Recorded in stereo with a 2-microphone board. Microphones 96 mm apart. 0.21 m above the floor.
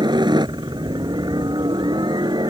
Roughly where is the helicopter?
Right.